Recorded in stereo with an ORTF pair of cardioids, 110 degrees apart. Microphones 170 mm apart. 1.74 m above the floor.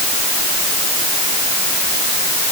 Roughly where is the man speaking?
I don't hear a man speaking.